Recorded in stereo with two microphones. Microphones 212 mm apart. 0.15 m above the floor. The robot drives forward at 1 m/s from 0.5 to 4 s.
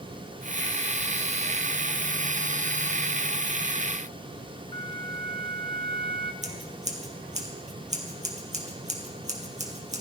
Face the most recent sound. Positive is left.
turn(degrees=-35)  # may be behind; listen again after turning